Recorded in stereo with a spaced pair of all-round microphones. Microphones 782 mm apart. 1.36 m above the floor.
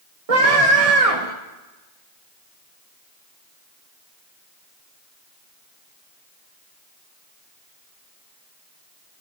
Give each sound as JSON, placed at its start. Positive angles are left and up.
{"t": 0.3, "sound": "a scream", "side_deg": -45, "distance_m": 1.3}